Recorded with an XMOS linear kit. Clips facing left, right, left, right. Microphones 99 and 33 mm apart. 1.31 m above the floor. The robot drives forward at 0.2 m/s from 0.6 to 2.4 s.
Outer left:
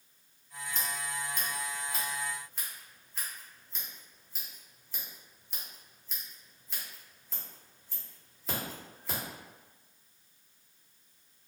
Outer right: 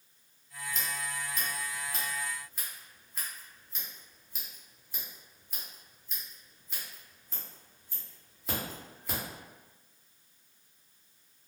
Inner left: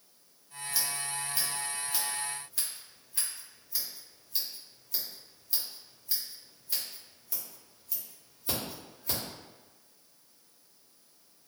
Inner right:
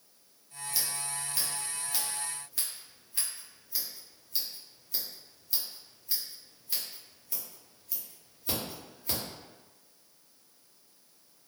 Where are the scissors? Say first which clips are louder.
Even, inner left 2 dB; centre (ahead or behind), 0.8 m.